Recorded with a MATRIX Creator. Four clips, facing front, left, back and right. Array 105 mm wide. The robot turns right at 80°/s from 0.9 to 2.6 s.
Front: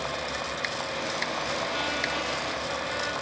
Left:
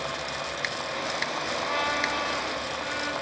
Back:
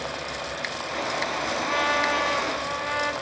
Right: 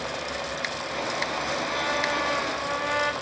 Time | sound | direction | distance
1.6 | a trumpet | 165° left | 0.9 m